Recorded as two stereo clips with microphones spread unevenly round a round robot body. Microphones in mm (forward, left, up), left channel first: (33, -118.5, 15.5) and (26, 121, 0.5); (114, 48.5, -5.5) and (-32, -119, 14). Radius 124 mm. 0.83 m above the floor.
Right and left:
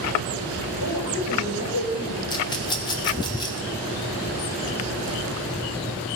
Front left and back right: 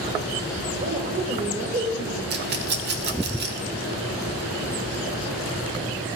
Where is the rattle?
160° right, 0.8 m.